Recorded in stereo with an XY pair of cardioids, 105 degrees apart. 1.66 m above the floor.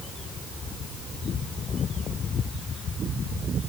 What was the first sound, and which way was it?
Only background noise.